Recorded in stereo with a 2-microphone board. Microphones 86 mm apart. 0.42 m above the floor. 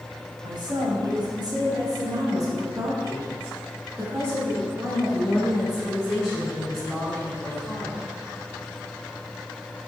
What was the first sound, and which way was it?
A woman speaking, 55° right (ahead or behind).